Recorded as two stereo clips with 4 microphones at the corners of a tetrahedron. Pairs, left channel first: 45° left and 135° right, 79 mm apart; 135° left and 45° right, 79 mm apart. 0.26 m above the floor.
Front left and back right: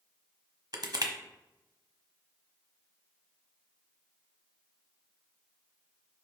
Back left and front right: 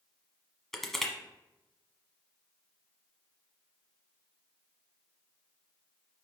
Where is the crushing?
140° right, 1.1 m.